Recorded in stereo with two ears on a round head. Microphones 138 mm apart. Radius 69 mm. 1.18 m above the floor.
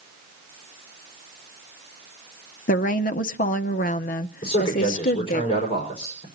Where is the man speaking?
40° left (ahead or behind), 4.5 m.